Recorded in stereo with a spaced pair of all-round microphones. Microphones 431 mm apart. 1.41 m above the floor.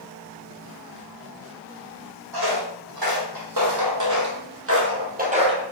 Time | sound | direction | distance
2.3 | footsteps | 60° right (ahead or behind) | 3 m